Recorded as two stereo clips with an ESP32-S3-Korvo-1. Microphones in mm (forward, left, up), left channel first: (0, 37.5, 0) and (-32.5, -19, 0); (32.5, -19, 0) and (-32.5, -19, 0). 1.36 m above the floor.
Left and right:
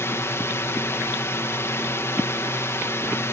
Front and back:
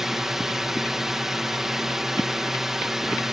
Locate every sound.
0.0 s a drone: 100° left